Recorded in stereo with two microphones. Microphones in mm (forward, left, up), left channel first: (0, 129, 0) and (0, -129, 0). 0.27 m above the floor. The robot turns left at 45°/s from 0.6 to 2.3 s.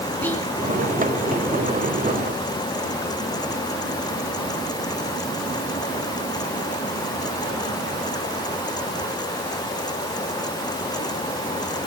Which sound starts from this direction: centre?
Whispering, at 0.2 s.